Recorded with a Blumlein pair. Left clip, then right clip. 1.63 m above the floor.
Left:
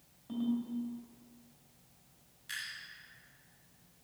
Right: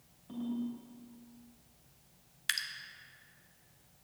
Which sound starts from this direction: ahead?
A ringtone, at 0.3 s.